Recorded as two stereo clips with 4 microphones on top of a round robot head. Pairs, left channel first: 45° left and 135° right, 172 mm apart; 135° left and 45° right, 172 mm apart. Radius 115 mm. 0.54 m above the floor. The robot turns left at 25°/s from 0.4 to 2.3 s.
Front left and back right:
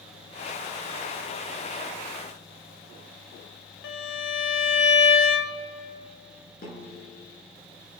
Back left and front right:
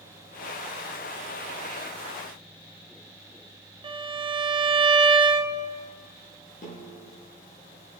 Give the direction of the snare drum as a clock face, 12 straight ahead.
9 o'clock.